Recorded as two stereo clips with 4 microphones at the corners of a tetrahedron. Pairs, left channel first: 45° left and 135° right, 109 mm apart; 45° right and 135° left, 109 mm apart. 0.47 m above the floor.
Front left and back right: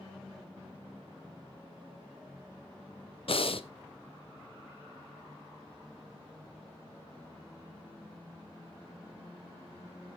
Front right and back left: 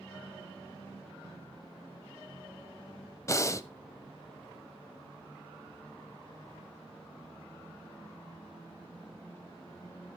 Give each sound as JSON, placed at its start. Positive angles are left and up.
{"t": 3.3, "sound": "breathing", "azimuth_deg": 15, "distance_m": 0.6}